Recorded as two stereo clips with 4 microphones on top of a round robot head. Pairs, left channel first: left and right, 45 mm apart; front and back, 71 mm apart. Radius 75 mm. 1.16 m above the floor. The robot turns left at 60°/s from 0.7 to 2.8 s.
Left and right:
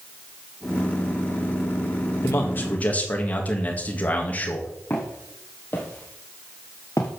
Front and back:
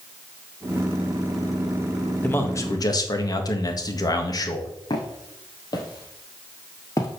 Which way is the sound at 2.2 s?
65° left.